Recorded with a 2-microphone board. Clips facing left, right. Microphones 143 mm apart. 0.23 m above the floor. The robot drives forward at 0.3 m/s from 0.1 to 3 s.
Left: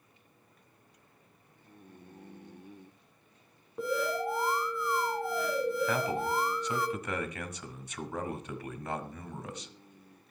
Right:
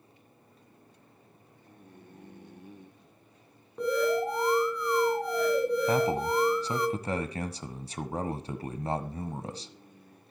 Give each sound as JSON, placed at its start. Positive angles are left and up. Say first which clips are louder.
{"t": 3.8, "sound": "an alarm", "louder": "right 5 dB", "side_deg": 5, "distance_m": 3.0}
{"t": 5.9, "sound": "a man speaking", "louder": "right 5 dB", "side_deg": -30, "distance_m": 1.3}